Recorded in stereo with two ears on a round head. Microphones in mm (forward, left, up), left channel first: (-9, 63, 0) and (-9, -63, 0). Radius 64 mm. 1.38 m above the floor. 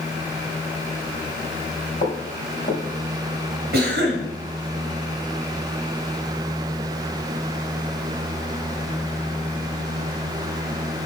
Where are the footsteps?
50° left (ahead or behind), 2.5 m.